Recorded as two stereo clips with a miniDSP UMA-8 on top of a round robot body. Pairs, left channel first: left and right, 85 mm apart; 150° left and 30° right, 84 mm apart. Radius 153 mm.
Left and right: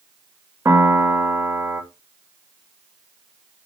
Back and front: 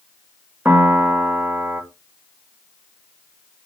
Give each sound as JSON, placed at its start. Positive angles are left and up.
{"t": 0.7, "sound": "a piano", "azimuth_deg": -85, "distance_m": 1.0}